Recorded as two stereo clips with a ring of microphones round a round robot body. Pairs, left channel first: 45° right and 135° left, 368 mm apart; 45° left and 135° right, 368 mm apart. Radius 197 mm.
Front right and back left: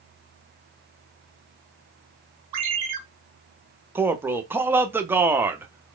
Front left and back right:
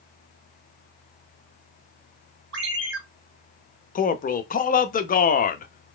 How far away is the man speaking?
About 0.7 m.